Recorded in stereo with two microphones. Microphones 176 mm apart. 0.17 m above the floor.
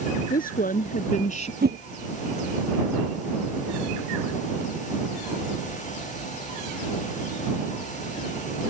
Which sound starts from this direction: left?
A woman speaking, at 0.3 s.